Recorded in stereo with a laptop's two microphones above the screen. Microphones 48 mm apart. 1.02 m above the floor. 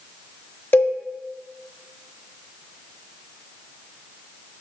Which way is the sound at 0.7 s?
40° left (ahead or behind).